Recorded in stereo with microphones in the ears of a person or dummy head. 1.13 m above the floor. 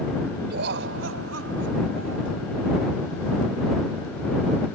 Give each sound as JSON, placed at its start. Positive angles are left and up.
{"t": 0.5, "sound": "laughter", "side_deg": -60}